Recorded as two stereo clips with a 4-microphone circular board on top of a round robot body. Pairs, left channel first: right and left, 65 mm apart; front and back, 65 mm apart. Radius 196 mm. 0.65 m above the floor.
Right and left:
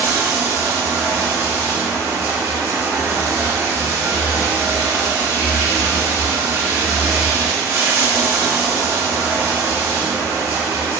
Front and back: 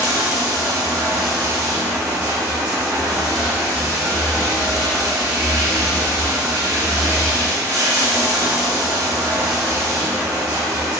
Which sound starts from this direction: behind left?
Running water, at 0.0 s.